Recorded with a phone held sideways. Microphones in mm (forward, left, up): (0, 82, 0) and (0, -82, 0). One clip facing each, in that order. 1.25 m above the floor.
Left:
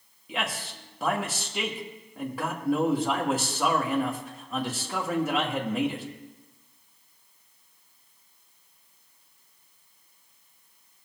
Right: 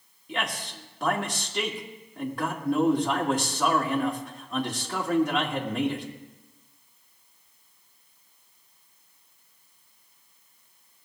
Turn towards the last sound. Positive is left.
turn(degrees=5)  # may be behind; listen again after turning